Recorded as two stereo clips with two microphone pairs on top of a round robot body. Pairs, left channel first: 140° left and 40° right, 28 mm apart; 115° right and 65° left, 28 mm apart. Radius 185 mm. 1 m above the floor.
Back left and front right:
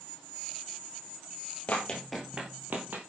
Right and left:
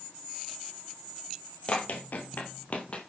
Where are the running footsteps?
165° right, 1.4 m; by 3.0 s 60° right, 1.8 m.